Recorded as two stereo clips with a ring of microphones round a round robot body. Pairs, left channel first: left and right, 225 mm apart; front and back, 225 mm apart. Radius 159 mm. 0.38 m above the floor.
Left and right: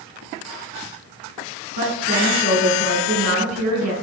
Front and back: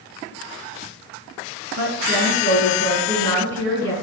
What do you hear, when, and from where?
1.8 s a woman speaking: 125° right, 4 m